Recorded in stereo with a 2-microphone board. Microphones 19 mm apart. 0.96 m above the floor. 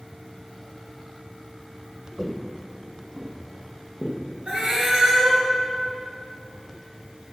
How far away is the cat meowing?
About 3.5 m.